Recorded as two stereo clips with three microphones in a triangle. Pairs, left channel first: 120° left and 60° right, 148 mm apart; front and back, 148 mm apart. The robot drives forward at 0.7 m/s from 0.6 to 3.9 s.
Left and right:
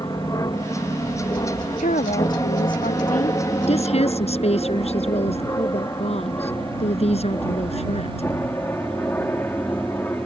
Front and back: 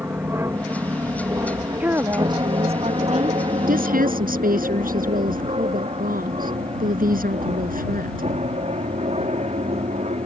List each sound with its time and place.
0.0 s an aircraft: 130° left; by 10.3 s 165° right
1.8 s a woman speaking: 100° left; by 3.5 s 150° left
3.7 s a woman speaking: 165° left